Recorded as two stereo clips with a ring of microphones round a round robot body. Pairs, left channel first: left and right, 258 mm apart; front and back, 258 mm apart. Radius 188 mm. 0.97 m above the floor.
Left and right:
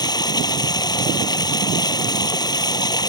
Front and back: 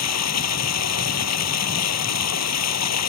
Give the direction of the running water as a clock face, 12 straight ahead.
11 o'clock.